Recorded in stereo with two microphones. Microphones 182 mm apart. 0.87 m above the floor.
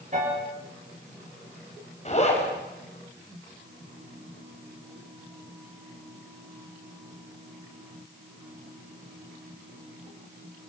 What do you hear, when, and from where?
0.1 s a piano: 40° right (ahead or behind), 7 m
2.0 s a zipper: 35° left (ahead or behind), 4 m